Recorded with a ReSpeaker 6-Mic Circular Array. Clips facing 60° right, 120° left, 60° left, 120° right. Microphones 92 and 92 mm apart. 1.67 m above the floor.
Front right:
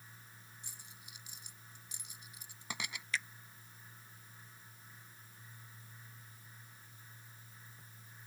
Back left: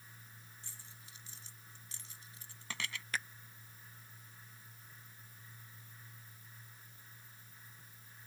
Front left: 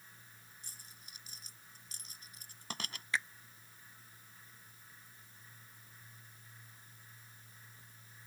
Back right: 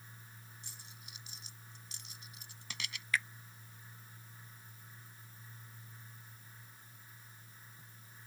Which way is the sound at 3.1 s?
115° left.